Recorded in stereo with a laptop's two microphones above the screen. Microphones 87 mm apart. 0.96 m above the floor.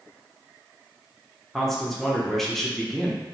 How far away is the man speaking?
About 0.8 m.